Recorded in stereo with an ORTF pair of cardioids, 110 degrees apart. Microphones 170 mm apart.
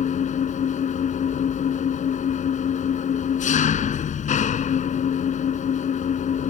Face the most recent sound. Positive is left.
turn(degrees=45)